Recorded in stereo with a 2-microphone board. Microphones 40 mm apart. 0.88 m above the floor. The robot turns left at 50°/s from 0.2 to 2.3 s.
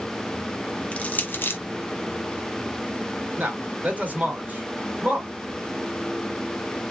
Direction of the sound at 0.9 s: 35° left (ahead or behind).